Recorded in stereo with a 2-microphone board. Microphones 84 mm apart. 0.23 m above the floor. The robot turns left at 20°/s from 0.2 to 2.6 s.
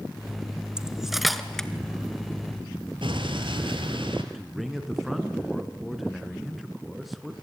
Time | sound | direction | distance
0.8 | cutlery clinking | 10° right (ahead or behind) | 1.7 m
3.0 | an explosion | 75° right (ahead or behind) | 3.5 m
4.3 | a man speaking | centre (ahead or behind) | 3 m